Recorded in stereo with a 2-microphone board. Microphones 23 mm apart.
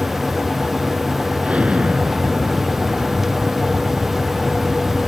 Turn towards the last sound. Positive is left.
turn(degrees=-65)  # may be behind; listen again after turning